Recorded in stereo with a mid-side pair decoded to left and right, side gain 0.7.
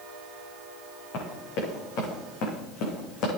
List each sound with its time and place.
1.1 s running footsteps: 65° left, 6 m; by 3.3 s 60° left, 4.5 m